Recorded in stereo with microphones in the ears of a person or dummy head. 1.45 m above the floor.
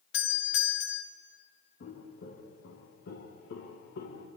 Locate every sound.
0.1 s a doorbell: 60° left (ahead or behind), 1.5 m
1.8 s footsteps: 50° left (ahead or behind), 3.5 m; by 4.3 s 65° left (ahead or behind), 3.5 m